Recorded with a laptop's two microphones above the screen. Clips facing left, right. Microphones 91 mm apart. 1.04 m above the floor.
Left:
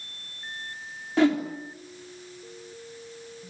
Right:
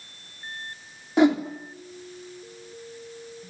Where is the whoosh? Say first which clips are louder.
Right 2 dB; 20° right (ahead or behind), 3 m.